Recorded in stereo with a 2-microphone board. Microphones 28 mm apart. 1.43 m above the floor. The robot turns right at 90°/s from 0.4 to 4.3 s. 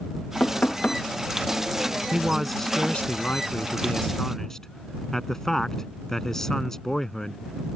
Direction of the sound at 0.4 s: 75° left.